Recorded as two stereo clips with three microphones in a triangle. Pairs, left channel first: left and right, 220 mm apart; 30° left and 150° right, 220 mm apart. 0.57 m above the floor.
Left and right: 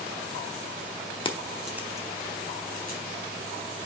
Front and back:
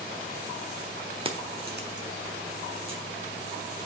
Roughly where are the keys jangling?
Behind left.